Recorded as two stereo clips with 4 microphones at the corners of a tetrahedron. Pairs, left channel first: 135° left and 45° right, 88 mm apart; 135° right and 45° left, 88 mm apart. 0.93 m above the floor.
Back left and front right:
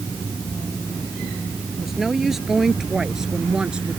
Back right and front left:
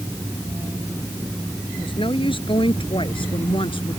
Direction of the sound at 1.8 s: 135° right.